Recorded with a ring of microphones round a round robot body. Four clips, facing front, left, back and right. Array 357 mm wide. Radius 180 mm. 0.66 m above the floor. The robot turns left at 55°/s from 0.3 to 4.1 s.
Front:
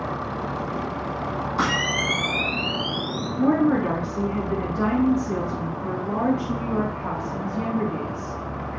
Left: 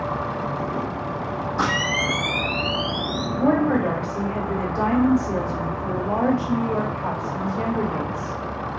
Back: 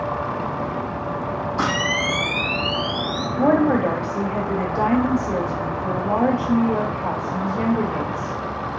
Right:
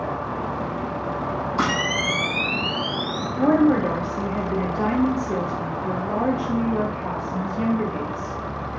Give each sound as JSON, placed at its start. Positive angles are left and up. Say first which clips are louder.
{"t": 1.6, "sound": "a camera shutter", "louder": "left 1 dB, back 1 dB", "azimuth_deg": -70, "distance_m": 1.6}
{"t": 3.4, "sound": "a woman speaking", "louder": "right 2 dB, back 2 dB", "azimuth_deg": -145, "distance_m": 1.9}